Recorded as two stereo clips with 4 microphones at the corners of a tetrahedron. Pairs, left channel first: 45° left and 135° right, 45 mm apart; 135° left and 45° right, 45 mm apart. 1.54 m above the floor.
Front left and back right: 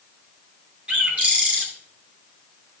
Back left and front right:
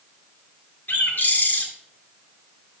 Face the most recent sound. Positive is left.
turn(degrees=175)